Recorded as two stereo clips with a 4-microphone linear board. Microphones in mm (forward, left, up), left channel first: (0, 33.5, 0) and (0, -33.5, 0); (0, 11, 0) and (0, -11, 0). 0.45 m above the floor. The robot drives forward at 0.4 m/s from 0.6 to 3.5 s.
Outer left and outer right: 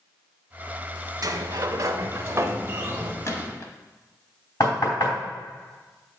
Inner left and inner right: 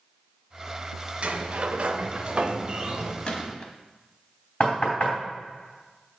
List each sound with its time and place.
1.2 s a sliding door: 60° right (ahead or behind), 0.6 m; by 3.1 s 30° right (ahead or behind), 1.0 m
3.2 s a gunshot: 45° left (ahead or behind), 1.0 m
4.6 s knocking: 65° left (ahead or behind), 3 m